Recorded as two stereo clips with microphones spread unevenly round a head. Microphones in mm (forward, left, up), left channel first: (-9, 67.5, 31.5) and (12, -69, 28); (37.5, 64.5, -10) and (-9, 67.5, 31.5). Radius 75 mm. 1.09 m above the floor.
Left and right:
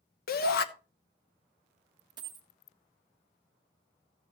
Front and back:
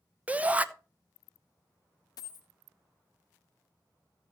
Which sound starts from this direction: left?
A shout, at 0.3 s.